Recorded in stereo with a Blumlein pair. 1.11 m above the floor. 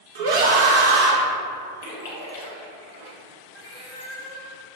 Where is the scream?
55° right, 0.6 m.